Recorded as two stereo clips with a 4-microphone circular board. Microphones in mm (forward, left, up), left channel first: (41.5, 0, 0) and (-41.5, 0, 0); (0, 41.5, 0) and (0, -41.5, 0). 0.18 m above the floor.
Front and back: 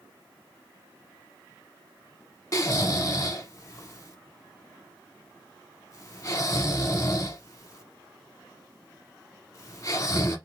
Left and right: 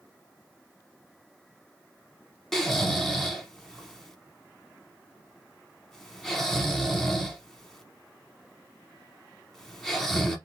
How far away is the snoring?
About 0.9 m.